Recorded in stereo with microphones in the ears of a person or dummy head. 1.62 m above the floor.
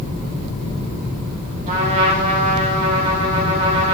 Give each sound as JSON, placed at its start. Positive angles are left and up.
{"t": 1.7, "sound": "a trumpet", "side_deg": -35, "distance_m": 1.2}